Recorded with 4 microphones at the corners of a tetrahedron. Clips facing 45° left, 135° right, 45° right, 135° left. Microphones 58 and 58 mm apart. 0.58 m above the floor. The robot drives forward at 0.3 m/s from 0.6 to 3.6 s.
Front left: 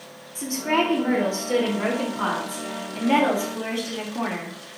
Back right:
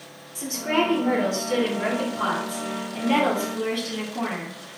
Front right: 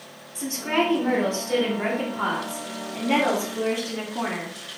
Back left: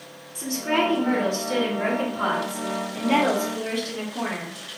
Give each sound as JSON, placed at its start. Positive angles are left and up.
{"t": 0.3, "sound": "a woman speaking", "azimuth_deg": 0, "distance_m": 1.7}